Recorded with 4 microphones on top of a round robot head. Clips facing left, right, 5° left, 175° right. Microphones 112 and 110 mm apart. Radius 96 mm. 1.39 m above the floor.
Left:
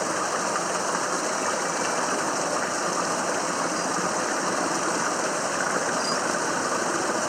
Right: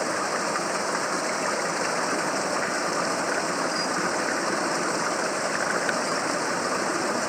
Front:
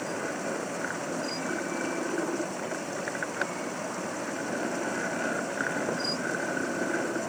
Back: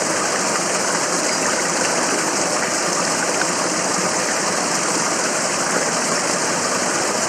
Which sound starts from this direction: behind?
Running water, at 0.0 s.